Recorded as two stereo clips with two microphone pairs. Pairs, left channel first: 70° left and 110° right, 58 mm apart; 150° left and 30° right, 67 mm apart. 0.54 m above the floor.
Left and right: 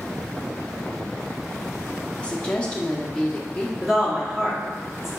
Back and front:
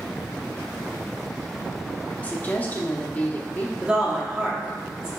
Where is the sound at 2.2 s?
130° left, 0.7 m.